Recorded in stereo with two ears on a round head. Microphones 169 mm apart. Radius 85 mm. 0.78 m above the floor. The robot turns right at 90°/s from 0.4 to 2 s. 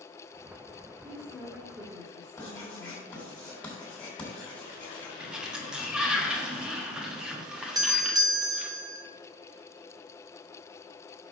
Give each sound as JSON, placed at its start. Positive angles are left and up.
{"t": 1.0, "sound": "a woman speaking", "azimuth_deg": 140, "distance_m": 3.0}
{"t": 2.4, "sound": "writing", "side_deg": 5, "distance_m": 3.0}
{"t": 5.2, "sound": "a sliding door", "side_deg": -5, "distance_m": 1.2}
{"t": 7.8, "sound": "a doorbell", "side_deg": -20, "distance_m": 0.8}